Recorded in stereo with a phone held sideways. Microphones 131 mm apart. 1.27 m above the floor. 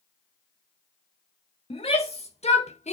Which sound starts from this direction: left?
A shout, at 1.7 s.